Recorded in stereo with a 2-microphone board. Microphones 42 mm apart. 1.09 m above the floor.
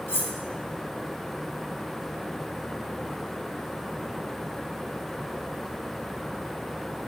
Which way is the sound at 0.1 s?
75° left (ahead or behind).